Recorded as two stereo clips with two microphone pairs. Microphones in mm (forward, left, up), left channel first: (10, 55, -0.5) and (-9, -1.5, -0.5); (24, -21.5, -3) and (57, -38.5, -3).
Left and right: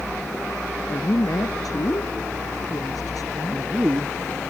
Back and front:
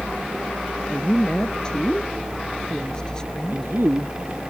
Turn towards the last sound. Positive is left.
turn(degrees=-45)